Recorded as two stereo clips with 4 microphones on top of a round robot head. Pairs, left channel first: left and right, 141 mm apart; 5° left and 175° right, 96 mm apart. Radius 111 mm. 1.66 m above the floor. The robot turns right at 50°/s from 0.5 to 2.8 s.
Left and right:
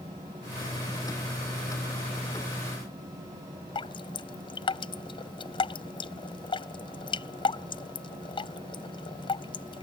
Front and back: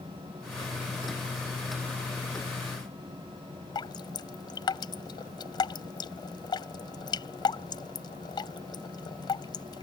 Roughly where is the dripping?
Ahead left.